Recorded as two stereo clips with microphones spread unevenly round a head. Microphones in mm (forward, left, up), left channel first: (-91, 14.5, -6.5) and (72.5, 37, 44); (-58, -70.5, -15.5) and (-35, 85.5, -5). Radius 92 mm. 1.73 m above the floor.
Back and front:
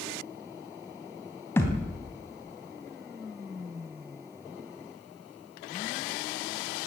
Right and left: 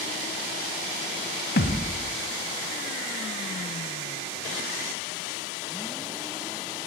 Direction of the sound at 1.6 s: 85° right.